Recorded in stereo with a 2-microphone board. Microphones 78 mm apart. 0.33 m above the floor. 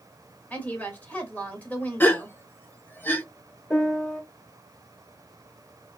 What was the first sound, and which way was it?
A woman speaking, 20° left (ahead or behind).